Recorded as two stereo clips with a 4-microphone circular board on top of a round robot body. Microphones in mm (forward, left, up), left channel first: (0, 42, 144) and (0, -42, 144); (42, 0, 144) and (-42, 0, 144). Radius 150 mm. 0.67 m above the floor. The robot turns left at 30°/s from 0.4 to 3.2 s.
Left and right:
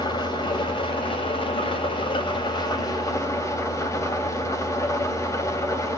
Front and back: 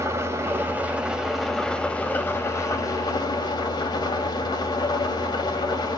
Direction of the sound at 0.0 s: 120° left.